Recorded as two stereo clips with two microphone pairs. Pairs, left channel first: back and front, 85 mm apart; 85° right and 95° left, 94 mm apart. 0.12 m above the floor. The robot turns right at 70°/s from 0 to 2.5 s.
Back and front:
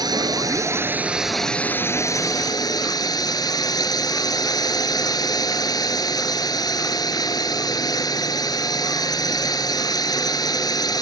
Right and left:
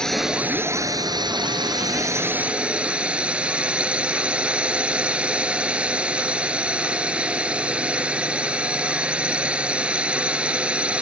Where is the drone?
5° right; by 11.0 s 170° left.